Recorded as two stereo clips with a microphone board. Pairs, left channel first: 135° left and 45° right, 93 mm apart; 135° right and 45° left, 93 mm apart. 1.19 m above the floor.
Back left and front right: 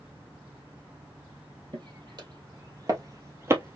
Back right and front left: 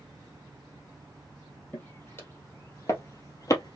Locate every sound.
1.7 s footsteps: 70° right, 2.5 m; by 3.8 s 105° right, 1.8 m